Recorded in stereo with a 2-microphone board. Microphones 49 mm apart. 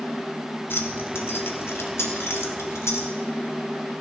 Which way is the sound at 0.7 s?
50° left (ahead or behind).